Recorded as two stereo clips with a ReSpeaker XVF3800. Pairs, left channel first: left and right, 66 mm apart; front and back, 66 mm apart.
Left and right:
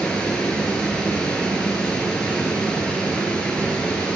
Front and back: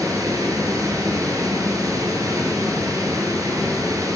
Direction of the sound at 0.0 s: 165° left.